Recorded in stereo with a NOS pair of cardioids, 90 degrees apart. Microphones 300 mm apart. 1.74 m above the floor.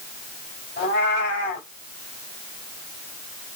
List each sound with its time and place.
0.8 s a cat meowing: 40° left, 6 m